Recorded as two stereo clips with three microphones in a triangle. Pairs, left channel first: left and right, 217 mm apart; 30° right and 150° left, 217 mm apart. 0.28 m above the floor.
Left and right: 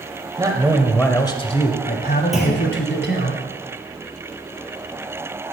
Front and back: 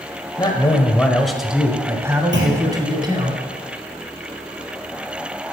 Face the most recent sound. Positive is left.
turn(degrees=180)